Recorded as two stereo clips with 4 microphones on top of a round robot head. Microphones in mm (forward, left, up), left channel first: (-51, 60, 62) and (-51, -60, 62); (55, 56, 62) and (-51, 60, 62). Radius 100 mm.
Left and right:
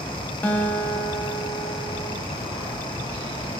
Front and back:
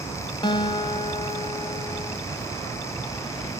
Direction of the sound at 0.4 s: 20° left.